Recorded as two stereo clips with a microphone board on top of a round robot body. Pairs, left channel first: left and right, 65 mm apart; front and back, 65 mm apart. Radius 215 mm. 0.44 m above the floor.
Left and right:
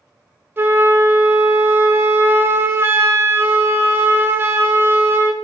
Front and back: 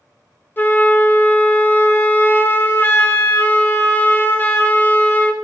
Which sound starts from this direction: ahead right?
A flute, at 0.6 s.